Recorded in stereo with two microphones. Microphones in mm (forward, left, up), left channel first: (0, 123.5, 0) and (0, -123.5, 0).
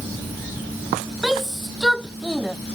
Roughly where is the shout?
Centre.